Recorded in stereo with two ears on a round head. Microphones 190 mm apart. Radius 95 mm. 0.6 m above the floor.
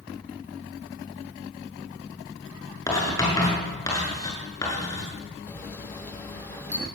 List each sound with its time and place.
2.9 s writing: 15° left (ahead or behind), 6.5 m
5.5 s a camera shutter: 10° left (ahead or behind), 2.5 m